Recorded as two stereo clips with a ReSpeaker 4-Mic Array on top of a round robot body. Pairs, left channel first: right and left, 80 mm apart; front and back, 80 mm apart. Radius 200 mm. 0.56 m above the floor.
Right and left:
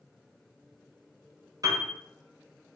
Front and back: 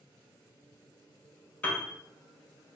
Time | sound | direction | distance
1.6 | a piano | 70° left | 1.1 m